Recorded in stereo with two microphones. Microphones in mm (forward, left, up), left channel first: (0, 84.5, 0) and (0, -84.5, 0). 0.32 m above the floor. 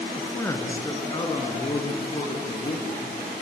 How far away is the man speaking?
About 3.5 m.